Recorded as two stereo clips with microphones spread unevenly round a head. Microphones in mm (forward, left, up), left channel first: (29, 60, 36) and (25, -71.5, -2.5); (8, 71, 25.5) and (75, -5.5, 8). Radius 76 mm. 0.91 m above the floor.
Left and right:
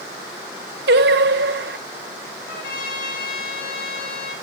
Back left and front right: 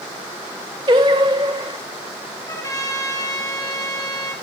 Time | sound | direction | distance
0.9 | singing | 115° right | 0.8 m
2.5 | a trumpet | 75° left | 3 m